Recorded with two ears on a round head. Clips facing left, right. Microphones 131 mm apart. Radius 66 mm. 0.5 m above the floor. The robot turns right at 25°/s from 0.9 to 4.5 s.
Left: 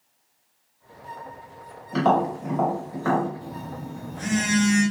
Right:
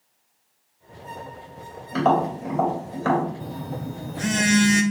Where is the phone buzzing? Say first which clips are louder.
Right 3 dB; 60° right (ahead or behind), 0.8 m; by 4.8 s 70° right (ahead or behind), 0.8 m.